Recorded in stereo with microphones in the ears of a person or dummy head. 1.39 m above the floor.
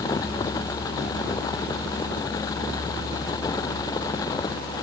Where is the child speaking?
I don't hear a child speaking.